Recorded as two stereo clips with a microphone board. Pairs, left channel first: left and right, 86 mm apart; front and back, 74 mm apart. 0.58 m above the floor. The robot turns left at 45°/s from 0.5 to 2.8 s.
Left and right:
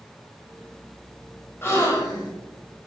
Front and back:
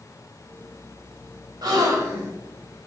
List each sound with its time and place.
1.6 s a gasp: 150° left, 1.0 m; by 2.3 s 120° left, 1.0 m